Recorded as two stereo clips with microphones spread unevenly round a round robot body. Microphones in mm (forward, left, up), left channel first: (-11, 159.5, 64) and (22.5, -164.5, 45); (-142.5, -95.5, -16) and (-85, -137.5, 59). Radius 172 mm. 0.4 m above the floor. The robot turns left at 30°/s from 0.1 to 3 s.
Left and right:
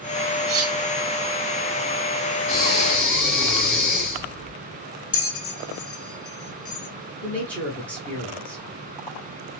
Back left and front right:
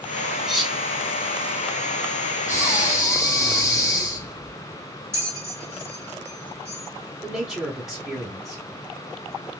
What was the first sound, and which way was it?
Cutlery clinking, 135° right.